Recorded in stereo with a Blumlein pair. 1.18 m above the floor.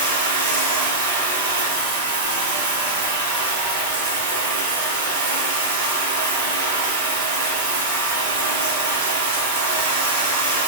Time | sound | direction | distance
0.0 | running water | 60° right | 1.1 m